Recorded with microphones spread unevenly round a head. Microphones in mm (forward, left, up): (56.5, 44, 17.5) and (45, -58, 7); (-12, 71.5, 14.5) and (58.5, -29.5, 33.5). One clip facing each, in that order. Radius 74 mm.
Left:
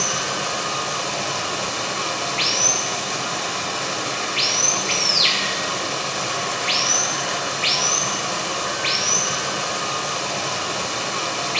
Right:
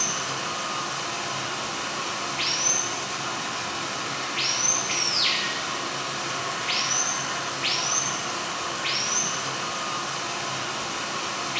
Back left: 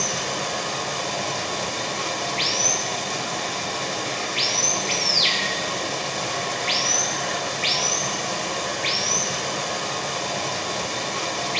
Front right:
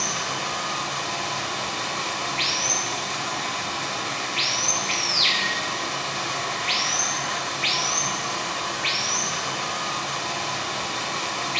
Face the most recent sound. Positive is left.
turn(degrees=80)